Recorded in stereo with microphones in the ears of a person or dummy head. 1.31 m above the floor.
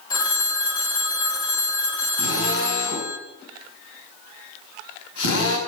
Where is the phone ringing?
25° left (ahead or behind), 1.1 m.